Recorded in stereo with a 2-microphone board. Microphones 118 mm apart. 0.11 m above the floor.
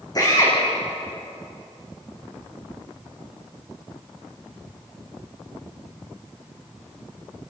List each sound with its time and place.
0.1 s a drill: 35° left (ahead or behind), 7.5 m